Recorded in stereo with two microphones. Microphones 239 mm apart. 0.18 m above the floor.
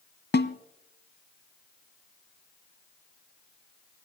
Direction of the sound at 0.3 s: 45° left (ahead or behind).